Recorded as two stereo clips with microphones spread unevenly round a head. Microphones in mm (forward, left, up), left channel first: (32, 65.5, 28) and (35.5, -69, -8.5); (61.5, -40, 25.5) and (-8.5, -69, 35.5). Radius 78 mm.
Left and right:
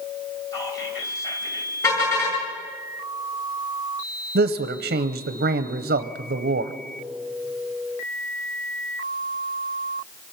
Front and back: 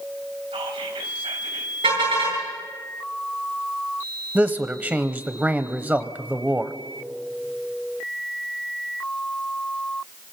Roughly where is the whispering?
Behind.